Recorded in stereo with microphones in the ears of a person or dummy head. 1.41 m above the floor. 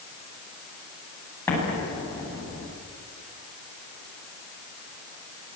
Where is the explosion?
15° left (ahead or behind), 9 m.